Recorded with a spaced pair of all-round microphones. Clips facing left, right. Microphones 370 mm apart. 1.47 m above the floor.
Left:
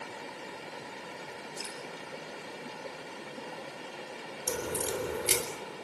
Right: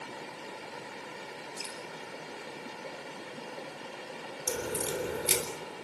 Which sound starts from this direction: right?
Dripping, at 1.6 s.